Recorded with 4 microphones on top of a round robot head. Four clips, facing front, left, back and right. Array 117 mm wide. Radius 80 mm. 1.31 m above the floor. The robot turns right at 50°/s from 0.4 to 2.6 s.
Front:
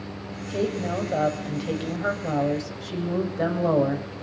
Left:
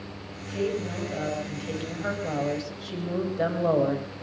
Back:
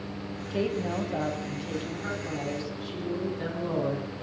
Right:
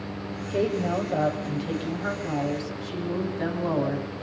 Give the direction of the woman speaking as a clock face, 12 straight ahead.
2 o'clock.